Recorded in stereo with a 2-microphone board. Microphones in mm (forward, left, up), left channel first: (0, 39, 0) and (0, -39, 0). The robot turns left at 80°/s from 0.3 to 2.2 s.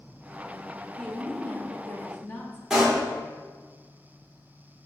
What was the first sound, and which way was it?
A woman speaking, 5° left (ahead or behind).